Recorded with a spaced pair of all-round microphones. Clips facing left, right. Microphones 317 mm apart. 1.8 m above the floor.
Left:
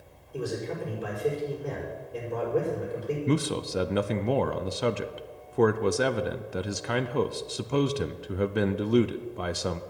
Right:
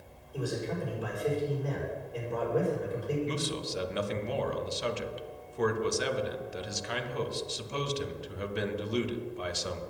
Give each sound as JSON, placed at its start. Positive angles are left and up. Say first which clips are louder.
{"t": 0.3, "sound": "a man speaking", "louder": "left 2 dB", "side_deg": 30, "distance_m": 6.0}
{"t": 3.3, "sound": "a man speaking", "louder": "left 7 dB", "side_deg": 65, "distance_m": 0.6}